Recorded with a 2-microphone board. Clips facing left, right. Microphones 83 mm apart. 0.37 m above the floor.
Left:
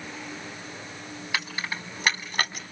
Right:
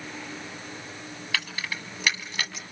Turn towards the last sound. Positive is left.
turn(degrees=50)  # may be behind; listen again after turning